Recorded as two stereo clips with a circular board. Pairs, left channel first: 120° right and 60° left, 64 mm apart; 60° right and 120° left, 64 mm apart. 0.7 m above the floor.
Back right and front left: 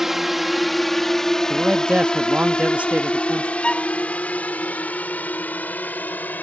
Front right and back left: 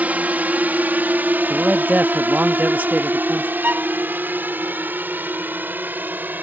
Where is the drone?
140° left; by 6.4 s straight behind.